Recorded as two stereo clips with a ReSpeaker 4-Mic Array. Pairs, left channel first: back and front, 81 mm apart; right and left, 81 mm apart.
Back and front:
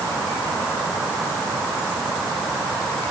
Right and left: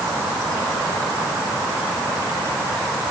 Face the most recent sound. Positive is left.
No sound to turn to.